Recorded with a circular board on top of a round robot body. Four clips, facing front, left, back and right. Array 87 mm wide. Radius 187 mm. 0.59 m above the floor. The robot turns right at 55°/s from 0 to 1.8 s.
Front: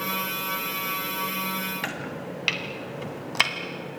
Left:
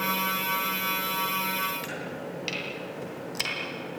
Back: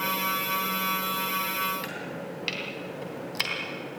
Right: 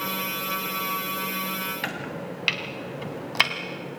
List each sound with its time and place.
1.8 s chopping: 55° right, 2 m